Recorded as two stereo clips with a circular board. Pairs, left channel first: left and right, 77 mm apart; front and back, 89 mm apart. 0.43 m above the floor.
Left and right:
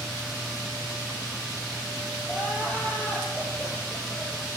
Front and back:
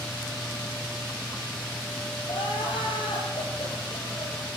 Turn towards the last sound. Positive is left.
turn(degrees=20)